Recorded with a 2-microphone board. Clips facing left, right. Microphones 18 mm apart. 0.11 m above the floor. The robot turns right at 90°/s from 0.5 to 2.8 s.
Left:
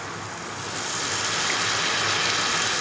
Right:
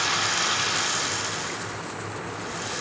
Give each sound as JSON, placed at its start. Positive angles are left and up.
{"t": 0.0, "sound": "running water", "azimuth_deg": -55}